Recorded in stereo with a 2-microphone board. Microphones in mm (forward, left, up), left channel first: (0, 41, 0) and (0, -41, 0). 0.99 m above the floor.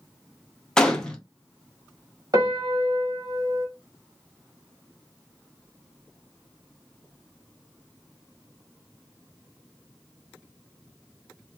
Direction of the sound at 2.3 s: 50° right (ahead or behind).